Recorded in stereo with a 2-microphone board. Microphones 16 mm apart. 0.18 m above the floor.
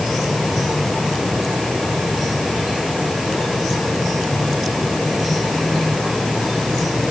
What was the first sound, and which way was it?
Only background noise.